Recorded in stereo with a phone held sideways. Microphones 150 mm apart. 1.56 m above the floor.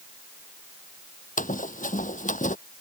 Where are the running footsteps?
60° left (ahead or behind).